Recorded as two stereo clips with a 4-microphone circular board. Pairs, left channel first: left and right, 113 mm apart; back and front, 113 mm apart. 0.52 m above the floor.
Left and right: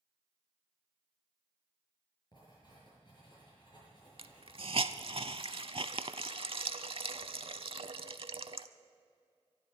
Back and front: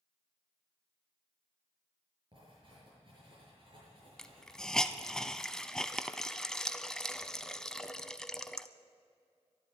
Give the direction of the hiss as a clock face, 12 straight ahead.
3 o'clock.